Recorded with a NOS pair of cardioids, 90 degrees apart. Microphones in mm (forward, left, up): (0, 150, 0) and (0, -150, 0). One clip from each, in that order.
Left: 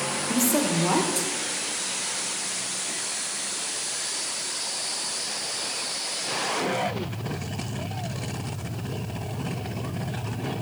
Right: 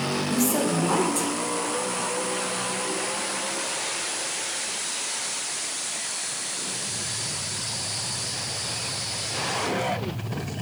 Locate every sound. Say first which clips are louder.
0.3 s a woman speaking: left 1 dB; 5° left, 1.4 m